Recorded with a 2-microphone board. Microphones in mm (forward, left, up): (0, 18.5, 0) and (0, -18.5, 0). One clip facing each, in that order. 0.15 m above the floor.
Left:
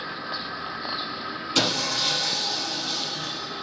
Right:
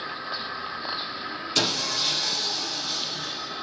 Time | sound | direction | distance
1.6 | sawing | 15° left (ahead or behind) | 2.5 m